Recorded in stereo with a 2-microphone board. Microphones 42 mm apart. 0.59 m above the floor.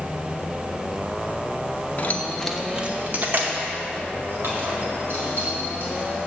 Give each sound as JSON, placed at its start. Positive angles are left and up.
{"t": 2.0, "sound": "keys jangling", "side_deg": 45, "distance_m": 0.7}